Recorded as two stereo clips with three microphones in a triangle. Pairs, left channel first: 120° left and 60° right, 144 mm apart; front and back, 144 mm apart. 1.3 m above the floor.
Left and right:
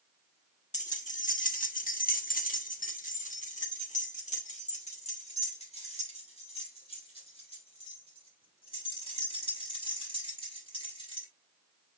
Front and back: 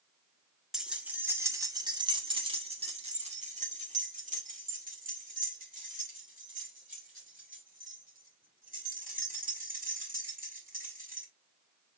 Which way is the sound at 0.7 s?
95° left.